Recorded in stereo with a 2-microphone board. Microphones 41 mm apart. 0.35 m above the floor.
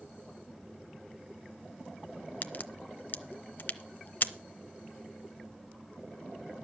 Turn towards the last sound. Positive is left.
turn(degrees=50)  # may be behind; listen again after turning